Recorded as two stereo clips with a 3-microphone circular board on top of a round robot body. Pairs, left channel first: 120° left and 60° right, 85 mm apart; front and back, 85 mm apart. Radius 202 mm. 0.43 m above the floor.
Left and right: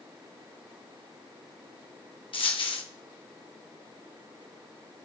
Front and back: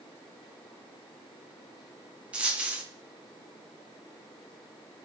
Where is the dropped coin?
105° left, 1.7 m.